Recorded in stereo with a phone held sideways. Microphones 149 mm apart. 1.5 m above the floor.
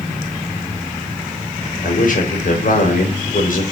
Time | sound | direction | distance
1.8 | a man speaking | 65° left (ahead or behind) | 5 m